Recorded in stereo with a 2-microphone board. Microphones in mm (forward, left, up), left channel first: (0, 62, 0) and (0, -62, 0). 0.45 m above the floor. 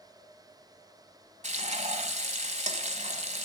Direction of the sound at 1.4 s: 80° right.